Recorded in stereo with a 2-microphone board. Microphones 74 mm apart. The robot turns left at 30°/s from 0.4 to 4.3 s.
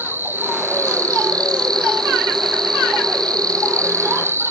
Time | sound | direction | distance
0.0 | an insect | 30° right | 0.8 m